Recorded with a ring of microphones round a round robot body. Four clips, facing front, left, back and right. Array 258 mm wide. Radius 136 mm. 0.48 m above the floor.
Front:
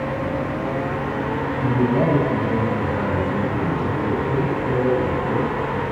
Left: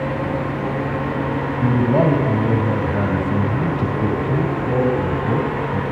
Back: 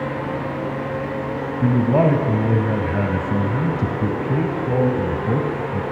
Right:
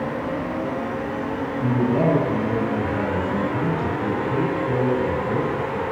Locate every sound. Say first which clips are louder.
1.6 s a man speaking: left 3 dB, back 3 dB; 145° left, 4 m